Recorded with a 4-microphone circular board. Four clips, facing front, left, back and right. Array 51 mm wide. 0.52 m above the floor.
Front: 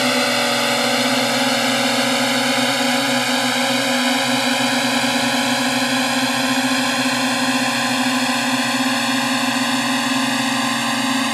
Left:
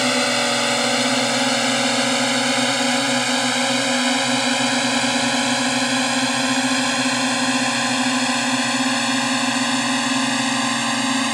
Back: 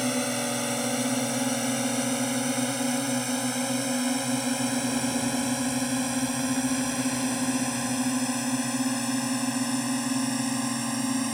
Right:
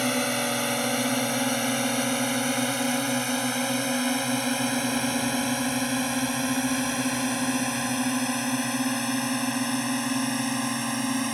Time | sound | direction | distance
0.0 | a drone | 30° left | ?